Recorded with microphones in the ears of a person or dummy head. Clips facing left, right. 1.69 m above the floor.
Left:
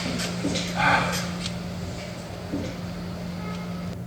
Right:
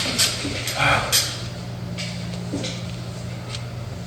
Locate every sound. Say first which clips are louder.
0.8 s a gasp: right 2 dB; 35° right (ahead or behind), 1.7 m